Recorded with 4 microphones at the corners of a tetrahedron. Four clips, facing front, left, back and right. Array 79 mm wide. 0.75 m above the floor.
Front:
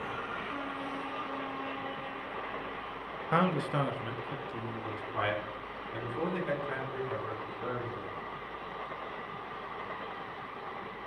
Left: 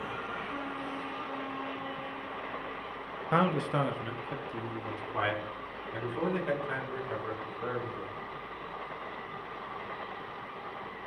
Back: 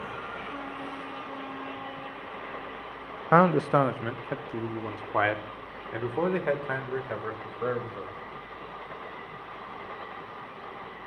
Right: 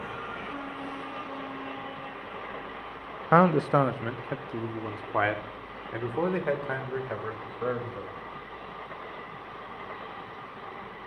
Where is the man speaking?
135° right, 0.5 m; by 8.2 s 140° right, 3 m.